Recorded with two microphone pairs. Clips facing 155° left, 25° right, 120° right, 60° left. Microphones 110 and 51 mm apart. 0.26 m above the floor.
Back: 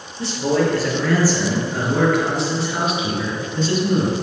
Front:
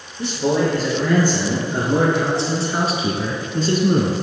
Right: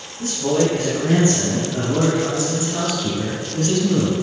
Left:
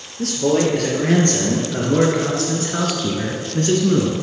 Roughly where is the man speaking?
Ahead left.